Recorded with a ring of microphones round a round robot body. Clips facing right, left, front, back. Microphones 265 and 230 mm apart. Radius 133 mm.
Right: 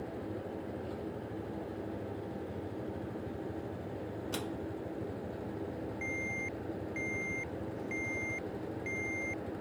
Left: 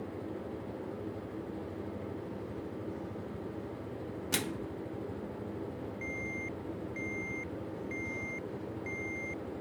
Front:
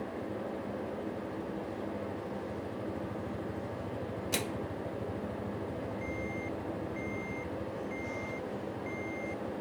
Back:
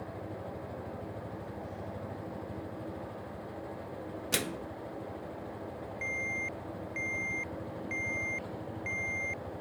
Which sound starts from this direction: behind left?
A microwave, at 4.3 s.